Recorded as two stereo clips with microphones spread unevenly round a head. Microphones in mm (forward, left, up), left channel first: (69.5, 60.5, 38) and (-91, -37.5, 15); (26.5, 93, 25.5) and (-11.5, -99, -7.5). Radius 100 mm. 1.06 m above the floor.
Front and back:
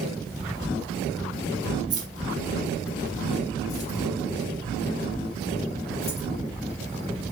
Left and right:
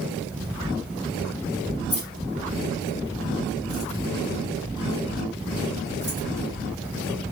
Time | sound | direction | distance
1.9 | keys jangling | 145° left | 2.5 m